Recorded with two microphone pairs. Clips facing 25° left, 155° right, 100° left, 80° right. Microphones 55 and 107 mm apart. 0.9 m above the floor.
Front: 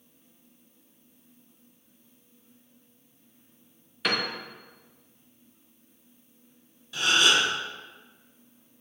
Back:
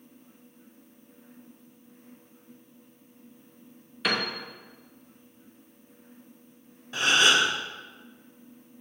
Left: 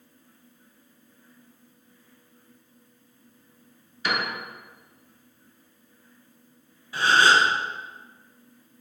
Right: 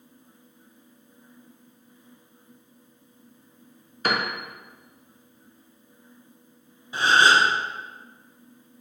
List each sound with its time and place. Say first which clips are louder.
4.0 s a piano: even, right 2 dB; 70° right, 0.5 m
6.9 s a gasp: back 1 dB, right 1 dB; 140° right, 0.8 m